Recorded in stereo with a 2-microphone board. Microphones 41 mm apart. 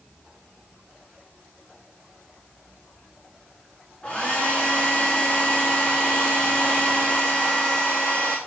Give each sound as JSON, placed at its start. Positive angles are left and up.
{"t": 4.0, "sound": "a hair dryer", "side_deg": 25, "distance_m": 2.5}